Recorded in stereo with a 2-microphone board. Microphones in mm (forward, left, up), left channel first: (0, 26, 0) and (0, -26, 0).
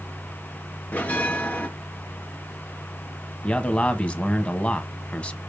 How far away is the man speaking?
About 1.2 m.